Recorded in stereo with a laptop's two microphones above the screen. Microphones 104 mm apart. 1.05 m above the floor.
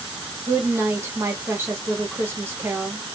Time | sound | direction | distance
0.5 | a woman speaking | 25° right (ahead or behind) | 2 m